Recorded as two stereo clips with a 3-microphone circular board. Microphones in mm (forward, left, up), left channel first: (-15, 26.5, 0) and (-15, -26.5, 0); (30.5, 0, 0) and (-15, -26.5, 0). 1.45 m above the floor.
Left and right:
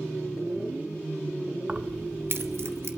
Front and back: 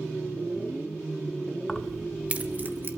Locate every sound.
1.7 s keys jangling: 40° right, 0.8 m; by 2.9 s 110° right, 1.4 m